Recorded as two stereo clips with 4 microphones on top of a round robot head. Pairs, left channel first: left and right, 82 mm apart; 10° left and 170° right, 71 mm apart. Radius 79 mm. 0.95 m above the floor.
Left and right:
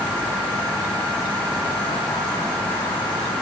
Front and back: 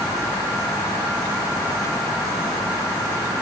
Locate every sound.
Only background noise.